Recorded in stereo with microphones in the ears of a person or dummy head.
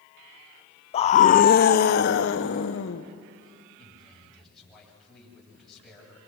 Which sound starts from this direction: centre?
A man speaking, at 3.8 s.